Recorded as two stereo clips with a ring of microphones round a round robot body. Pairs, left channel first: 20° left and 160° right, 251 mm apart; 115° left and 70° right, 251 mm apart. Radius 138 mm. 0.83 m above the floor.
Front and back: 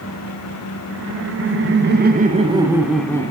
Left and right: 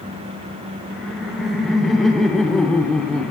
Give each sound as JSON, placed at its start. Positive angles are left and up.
{"t": 0.9, "sound": "laughter", "azimuth_deg": -155, "distance_m": 1.6}